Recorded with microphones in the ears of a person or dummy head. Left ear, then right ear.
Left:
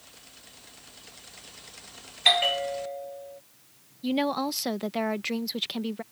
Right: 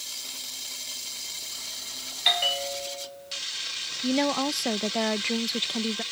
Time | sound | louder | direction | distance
2.2 | a bell | left 2 dB | 20° left (ahead or behind) | ?
4.0 | a woman speaking | right 1 dB | 5° right (ahead or behind) | ?